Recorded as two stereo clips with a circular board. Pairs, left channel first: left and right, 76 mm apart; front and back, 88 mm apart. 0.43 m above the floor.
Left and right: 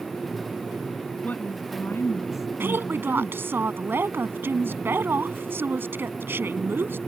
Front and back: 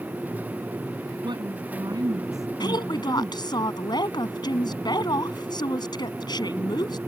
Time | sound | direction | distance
1.2 | a woman speaking | 160° left | ?
2.6 | a woman speaking | 30° right | ?